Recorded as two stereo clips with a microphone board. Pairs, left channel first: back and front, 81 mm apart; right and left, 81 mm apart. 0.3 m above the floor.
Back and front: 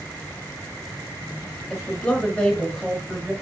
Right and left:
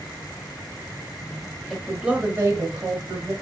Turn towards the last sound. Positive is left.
turn(degrees=100)